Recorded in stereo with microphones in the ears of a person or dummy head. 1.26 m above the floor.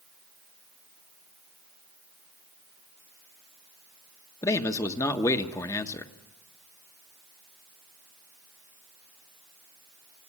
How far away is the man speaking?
About 1.3 m.